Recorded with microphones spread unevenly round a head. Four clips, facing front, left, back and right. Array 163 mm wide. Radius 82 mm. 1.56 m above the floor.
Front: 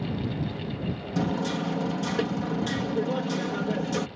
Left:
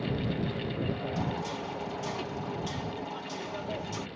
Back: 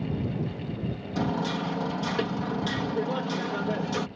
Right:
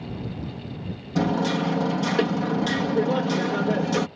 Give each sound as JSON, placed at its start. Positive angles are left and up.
{"t": 1.1, "sound": "hammering", "azimuth_deg": -90}